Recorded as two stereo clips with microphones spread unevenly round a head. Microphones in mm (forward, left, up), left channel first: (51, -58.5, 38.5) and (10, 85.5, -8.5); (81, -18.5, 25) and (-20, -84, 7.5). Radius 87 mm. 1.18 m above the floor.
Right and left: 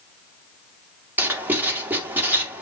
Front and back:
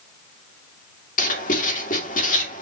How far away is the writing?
About 2.5 m.